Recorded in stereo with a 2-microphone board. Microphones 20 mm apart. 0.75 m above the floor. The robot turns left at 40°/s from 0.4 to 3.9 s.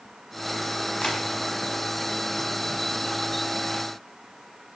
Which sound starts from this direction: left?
Tapping, at 1.0 s.